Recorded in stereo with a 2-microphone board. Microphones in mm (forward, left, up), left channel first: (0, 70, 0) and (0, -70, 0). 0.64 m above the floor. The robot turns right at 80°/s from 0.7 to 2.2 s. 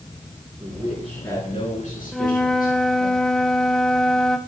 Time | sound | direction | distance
0.6 | a man speaking | 20° right | 7 m
2.1 | a flute | centre (ahead or behind) | 0.8 m